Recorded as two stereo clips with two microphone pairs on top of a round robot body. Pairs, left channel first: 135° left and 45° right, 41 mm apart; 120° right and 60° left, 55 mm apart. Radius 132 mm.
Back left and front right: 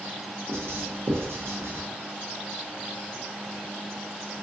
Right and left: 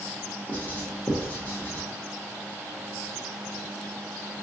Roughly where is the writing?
Ahead right.